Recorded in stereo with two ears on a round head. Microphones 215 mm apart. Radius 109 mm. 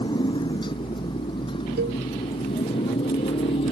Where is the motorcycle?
20° left (ahead or behind); by 3.7 s 25° left (ahead or behind).